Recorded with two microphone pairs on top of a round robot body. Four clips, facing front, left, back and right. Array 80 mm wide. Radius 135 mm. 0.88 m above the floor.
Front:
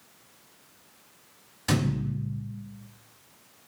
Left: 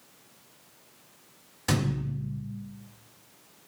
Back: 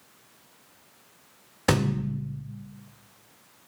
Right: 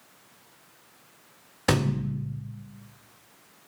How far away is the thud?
About 1.8 m.